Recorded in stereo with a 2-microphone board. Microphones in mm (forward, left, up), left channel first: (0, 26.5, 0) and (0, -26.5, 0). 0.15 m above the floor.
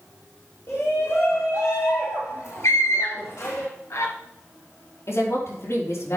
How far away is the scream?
About 2.5 m.